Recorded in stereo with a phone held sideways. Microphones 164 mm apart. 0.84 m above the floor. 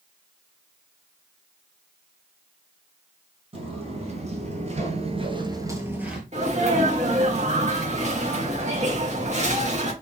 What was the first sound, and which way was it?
Footsteps, 40° right (ahead or behind).